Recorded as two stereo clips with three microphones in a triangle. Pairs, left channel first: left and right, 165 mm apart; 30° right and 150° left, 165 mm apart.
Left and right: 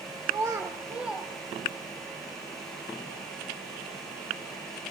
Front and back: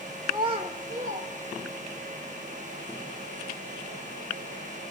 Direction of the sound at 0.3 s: 145° right.